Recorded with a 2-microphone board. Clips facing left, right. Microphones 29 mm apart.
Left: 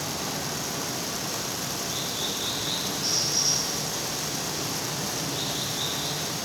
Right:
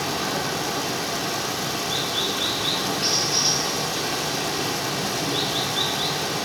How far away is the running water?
About 1.7 m.